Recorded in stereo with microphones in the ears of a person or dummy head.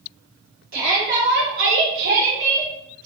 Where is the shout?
45° right (ahead or behind), 1.7 m; by 2.7 s 20° right (ahead or behind), 1.0 m.